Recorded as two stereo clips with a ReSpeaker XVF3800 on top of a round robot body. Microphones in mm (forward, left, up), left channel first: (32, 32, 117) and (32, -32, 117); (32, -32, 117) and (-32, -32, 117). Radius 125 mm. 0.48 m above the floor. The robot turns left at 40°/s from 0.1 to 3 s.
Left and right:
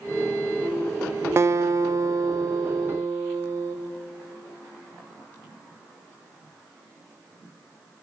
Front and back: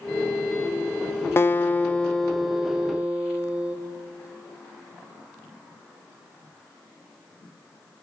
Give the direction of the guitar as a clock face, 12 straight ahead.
2 o'clock.